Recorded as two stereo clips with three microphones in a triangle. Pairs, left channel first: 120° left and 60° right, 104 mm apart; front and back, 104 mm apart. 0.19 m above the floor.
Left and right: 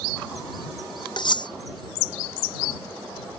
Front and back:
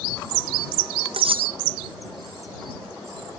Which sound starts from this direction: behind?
Cutlery clinking, at 1.2 s.